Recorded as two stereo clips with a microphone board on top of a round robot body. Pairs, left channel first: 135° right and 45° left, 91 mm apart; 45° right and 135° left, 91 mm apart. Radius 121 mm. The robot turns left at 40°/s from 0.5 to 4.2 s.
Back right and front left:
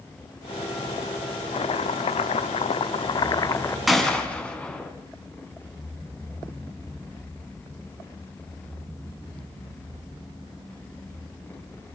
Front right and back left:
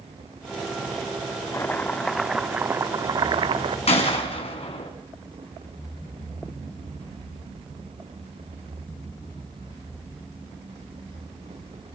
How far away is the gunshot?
About 3 m.